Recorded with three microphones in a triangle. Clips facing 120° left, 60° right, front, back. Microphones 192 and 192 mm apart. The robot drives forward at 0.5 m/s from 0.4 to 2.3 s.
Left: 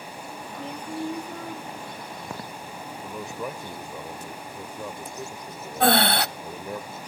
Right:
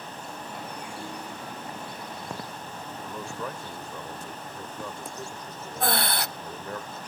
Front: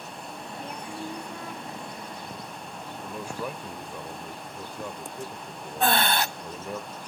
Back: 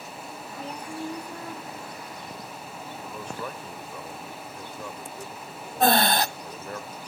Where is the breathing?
130° left, 0.5 m.